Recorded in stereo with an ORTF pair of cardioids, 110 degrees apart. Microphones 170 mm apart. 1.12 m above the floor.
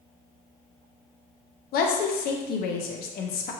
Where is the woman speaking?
65° left, 0.6 m.